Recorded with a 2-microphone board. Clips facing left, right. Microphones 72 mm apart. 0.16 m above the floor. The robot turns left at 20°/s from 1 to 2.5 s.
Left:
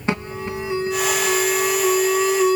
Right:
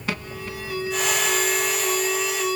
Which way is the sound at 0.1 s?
25° left (ahead or behind).